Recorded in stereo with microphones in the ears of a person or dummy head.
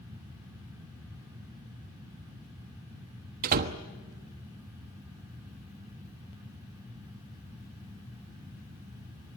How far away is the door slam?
About 1.1 m.